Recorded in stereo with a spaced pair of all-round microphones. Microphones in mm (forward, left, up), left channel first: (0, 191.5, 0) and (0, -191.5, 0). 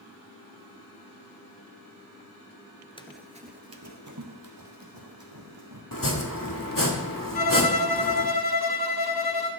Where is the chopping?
55° left (ahead or behind), 1.9 m.